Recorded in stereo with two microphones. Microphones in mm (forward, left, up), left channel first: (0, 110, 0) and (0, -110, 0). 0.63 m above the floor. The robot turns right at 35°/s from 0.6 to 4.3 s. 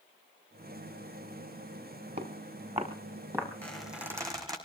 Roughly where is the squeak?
Centre.